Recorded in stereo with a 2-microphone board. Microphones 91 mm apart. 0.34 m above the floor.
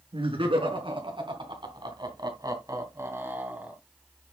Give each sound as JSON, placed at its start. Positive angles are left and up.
{"t": 0.1, "sound": "laughter", "side_deg": -75, "distance_m": 4.5}